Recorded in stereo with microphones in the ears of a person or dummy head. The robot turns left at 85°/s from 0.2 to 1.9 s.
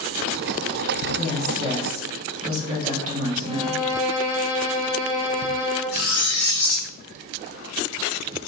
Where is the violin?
45° left (ahead or behind), 1.0 m.